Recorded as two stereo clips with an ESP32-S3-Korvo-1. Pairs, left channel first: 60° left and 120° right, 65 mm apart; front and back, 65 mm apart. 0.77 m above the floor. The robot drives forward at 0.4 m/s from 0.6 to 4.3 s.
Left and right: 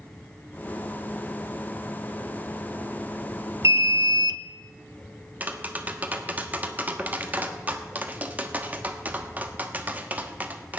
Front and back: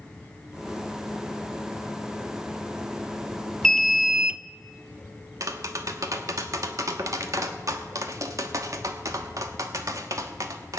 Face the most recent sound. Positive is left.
turn(degrees=180)